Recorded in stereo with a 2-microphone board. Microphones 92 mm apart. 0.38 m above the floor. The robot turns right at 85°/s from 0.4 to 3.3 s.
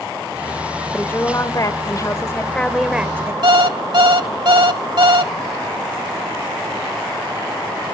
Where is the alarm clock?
65° right (ahead or behind), 1.0 m.